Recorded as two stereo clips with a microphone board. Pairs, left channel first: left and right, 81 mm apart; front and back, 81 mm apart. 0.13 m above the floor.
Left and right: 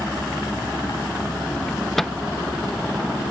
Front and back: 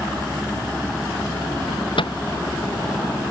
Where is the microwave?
Straight ahead.